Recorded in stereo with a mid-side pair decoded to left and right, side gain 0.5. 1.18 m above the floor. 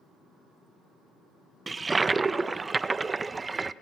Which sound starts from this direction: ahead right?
A toilet flushing, at 1.7 s.